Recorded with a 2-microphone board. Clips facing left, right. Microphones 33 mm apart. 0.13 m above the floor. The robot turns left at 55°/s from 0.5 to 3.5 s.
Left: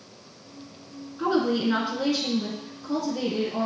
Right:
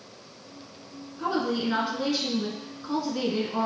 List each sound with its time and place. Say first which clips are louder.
1.2 s a woman speaking: left 4 dB; 45° left, 1.3 m; by 3.7 s 80° right, 1.3 m